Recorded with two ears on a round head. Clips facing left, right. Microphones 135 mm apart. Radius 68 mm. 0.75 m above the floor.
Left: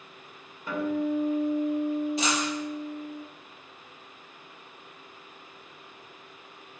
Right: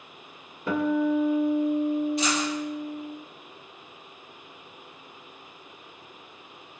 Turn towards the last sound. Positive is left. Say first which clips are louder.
# right 2 dB
turn(degrees=65)  # may be behind; listen again after turning